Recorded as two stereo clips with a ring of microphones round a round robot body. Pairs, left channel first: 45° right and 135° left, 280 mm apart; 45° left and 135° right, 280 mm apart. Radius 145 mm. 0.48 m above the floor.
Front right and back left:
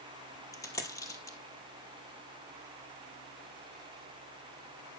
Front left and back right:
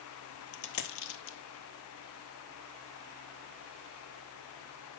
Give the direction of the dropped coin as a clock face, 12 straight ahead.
11 o'clock.